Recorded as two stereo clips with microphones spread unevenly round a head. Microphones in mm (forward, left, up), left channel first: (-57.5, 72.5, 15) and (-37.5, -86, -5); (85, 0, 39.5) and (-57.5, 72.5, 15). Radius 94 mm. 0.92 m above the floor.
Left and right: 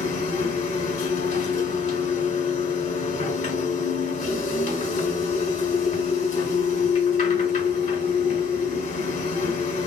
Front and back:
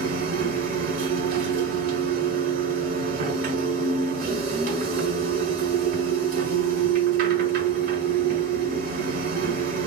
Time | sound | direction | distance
0.0 | a machine running | 130° left | 1.2 m